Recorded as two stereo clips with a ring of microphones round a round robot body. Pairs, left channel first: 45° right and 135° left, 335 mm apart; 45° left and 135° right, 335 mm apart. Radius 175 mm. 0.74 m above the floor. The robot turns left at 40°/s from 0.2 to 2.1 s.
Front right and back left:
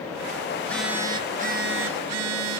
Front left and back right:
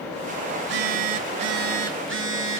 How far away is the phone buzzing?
About 2.5 m.